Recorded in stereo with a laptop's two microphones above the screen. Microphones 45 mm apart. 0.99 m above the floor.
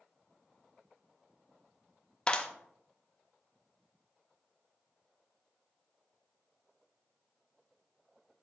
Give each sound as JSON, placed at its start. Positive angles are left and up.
{"t": 2.3, "sound": "a clap", "side_deg": 20, "distance_m": 0.7}